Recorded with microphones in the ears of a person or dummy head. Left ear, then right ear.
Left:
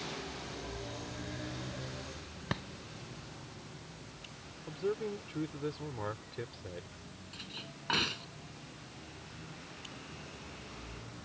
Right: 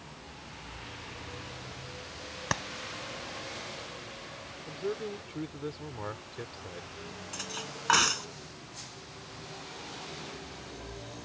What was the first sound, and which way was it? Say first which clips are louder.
A clap: right 7 dB; 40° right (ahead or behind).